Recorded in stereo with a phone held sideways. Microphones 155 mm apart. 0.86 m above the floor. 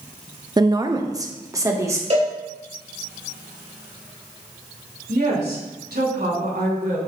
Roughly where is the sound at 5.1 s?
Right.